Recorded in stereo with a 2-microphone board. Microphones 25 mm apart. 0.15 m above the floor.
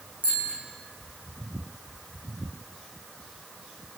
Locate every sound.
0.2 s a bicycle bell: 70° right (ahead or behind), 6.5 m